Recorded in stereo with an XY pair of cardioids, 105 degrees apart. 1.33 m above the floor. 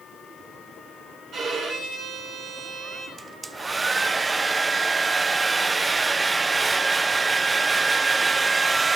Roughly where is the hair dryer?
Ahead.